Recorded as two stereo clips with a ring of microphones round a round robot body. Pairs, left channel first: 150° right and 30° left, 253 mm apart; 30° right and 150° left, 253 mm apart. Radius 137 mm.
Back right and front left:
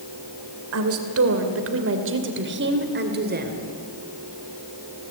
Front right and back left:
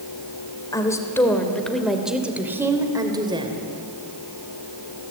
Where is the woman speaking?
45° left, 3 m; by 3.6 s 80° left, 3 m.